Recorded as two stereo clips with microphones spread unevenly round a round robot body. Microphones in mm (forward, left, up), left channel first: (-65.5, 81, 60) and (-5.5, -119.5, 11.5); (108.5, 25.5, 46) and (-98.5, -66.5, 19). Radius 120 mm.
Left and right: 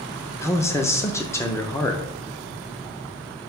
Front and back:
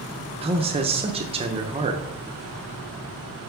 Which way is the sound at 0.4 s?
165° right.